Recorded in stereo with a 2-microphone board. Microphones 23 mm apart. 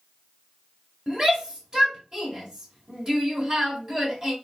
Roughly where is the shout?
Right.